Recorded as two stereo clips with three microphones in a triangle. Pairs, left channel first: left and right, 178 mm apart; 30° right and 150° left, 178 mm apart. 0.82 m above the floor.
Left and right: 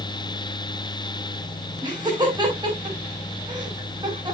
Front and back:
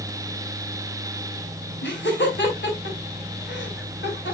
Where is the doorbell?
I don't hear a doorbell.